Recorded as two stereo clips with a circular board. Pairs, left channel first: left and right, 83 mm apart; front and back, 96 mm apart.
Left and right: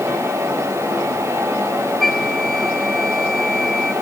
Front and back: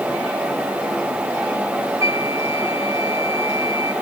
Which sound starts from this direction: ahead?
A flute, at 2.0 s.